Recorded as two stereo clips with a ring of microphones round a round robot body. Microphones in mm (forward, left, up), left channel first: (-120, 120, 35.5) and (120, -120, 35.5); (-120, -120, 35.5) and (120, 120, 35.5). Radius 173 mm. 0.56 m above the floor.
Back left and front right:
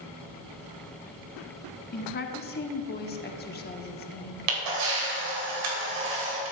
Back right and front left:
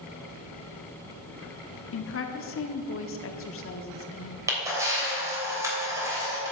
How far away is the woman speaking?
About 1.0 m.